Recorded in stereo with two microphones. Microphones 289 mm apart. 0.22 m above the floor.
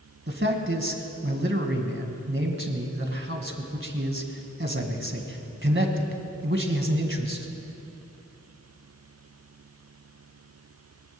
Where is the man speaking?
40° right (ahead or behind), 1.9 m.